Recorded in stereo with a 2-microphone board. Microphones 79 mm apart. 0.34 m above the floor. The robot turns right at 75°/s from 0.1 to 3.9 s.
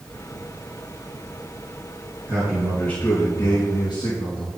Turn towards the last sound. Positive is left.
turn(degrees=95)